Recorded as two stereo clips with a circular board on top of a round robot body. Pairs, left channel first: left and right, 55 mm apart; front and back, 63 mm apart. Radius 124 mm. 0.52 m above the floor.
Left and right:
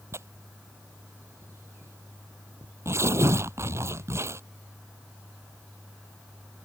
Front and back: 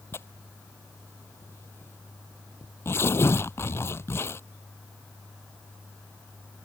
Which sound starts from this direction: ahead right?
Tearing paper, at 0.1 s.